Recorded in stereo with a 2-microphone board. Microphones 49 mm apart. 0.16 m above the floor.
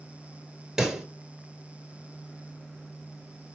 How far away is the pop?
About 1.6 m.